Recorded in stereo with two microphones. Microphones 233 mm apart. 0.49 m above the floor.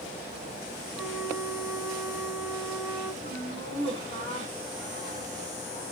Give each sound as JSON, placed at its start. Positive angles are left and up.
{"t": 0.9, "sound": "a flute", "side_deg": -10, "distance_m": 2.0}
{"t": 3.2, "sound": "laughter", "side_deg": 25, "distance_m": 6.0}